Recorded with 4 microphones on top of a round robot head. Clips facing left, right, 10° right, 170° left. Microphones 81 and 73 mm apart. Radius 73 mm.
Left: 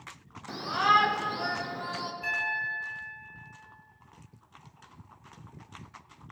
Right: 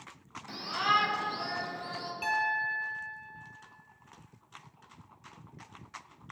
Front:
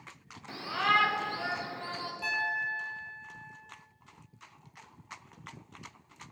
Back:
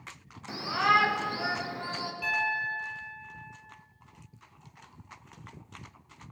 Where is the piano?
75° right, 1.9 m.